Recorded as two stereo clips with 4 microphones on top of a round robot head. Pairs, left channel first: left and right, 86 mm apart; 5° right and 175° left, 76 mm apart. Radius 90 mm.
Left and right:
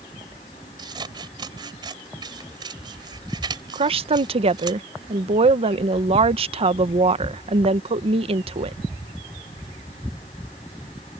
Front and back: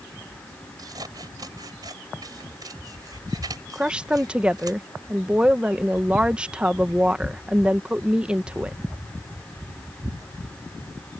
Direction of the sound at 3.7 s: 105° right.